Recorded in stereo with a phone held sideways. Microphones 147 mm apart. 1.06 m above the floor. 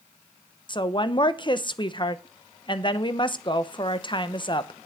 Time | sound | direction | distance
0.7 | a woman speaking | 35° left (ahead or behind) | 0.8 m